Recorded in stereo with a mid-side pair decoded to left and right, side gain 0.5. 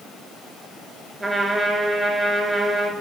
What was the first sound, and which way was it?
A trumpet, 15° right.